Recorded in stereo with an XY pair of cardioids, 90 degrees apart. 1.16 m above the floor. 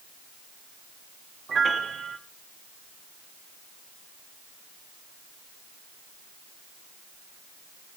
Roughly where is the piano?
Ahead right.